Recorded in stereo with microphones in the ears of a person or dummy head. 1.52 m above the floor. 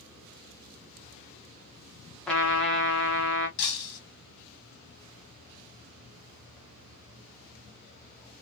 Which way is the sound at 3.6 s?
60° left (ahead or behind).